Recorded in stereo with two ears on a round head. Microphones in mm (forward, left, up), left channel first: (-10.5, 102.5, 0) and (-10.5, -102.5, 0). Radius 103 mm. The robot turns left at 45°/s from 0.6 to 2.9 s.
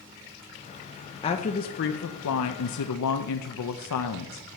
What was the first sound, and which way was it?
A woman speaking, 155° left.